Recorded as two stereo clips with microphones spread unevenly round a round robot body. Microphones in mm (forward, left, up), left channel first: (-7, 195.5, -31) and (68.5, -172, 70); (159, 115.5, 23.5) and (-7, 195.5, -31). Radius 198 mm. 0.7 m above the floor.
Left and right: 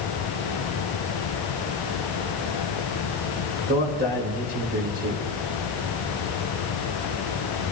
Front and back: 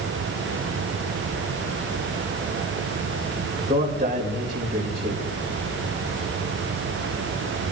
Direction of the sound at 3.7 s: 150° right.